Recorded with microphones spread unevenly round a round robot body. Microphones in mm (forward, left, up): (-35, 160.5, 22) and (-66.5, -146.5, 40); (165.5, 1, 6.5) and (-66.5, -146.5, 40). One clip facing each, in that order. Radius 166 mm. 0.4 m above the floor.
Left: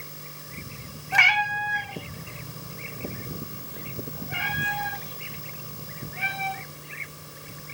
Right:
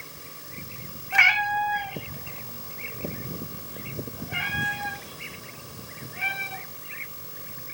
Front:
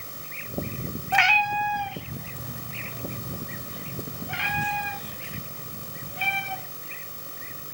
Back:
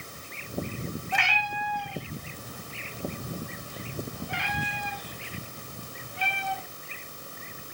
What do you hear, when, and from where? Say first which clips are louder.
1.1 s a cat meowing: even, front 6 dB; 40° left, 0.9 m; by 6.6 s 10° right, 4.5 m